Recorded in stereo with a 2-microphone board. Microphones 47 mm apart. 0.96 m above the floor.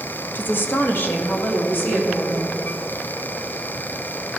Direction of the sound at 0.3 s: 40° left (ahead or behind).